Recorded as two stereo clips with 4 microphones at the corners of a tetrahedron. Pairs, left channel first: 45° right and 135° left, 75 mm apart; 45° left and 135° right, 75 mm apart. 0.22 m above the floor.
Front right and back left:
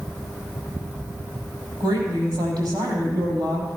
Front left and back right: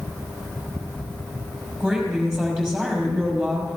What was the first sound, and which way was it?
A woman speaking, 135° left.